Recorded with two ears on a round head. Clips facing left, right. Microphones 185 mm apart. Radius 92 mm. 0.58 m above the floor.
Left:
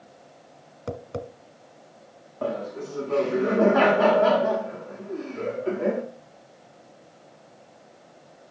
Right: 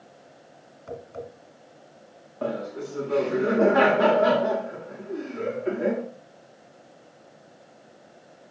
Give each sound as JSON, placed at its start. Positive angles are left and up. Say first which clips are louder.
{"t": 0.9, "sound": "tapping", "louder": "left 3 dB", "side_deg": 70, "distance_m": 1.1}
{"t": 2.4, "sound": "laughter", "louder": "even", "side_deg": -15, "distance_m": 1.2}